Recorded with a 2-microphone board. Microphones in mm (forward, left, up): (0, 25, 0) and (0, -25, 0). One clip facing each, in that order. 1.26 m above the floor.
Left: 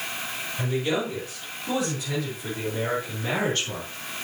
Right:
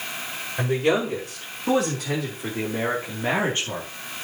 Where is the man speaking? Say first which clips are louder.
Right 5 dB; 70° right (ahead or behind), 5 m; by 3.9 s 20° right (ahead or behind), 2.5 m.